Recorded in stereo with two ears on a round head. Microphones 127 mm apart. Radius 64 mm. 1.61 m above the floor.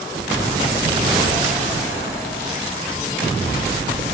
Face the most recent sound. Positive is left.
No sound to turn to.